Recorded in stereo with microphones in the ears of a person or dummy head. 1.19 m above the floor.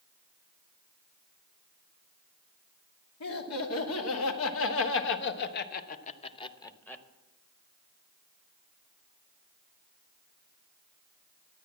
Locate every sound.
3.2 s laughter: 90° left, 2 m; by 7.0 s 5° left (ahead or behind), 1.0 m